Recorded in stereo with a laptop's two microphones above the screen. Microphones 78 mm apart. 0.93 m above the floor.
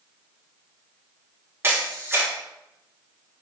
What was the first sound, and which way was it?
A camera shutter, 35° right (ahead or behind).